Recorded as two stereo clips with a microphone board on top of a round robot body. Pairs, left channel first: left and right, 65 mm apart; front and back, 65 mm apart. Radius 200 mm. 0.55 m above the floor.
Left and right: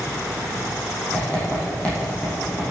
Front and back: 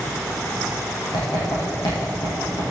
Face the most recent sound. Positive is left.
turn(degrees=20)